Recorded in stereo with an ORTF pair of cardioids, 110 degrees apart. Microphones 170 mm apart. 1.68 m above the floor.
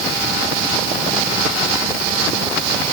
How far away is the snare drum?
No snare drum in this recording.